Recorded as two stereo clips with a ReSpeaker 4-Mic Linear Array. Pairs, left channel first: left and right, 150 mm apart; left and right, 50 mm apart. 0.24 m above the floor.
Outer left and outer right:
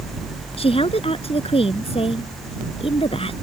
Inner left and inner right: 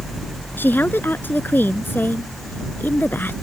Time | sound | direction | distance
0.6 | a woman speaking | 40° left (ahead or behind) | ?